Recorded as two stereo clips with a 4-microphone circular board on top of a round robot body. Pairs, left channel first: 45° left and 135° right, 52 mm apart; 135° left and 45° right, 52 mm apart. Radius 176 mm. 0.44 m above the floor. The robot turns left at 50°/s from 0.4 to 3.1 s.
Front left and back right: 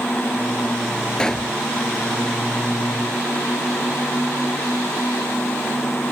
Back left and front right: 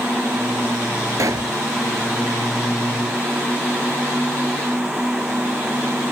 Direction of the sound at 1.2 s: 30° right.